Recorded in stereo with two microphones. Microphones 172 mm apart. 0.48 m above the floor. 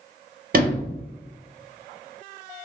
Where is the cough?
No cough in this recording.